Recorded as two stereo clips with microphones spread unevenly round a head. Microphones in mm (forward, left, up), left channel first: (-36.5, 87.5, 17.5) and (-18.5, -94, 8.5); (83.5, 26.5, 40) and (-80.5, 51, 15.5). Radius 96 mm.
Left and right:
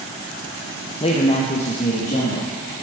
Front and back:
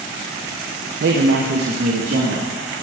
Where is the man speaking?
160° left, 0.8 m; by 2.5 s 150° left, 2 m.